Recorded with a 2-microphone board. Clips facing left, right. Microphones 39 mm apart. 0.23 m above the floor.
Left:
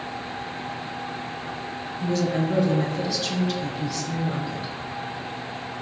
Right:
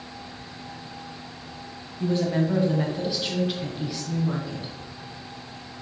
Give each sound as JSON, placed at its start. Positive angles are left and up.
{"t": 2.0, "sound": "a woman speaking", "side_deg": -30, "distance_m": 1.3}